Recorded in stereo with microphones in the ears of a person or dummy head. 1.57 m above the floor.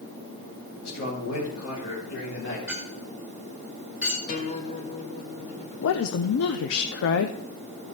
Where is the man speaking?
75° left (ahead or behind), 3 m.